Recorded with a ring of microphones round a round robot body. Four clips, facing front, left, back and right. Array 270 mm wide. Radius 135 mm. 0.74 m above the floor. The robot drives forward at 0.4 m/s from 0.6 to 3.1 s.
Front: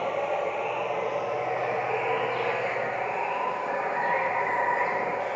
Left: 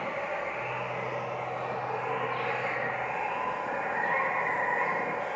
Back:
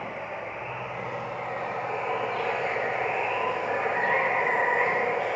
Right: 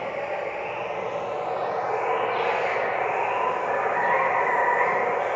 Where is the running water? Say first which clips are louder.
Right 4 dB, front 8 dB; 40° right, 1.2 m; by 5.4 s 105° right, 0.9 m.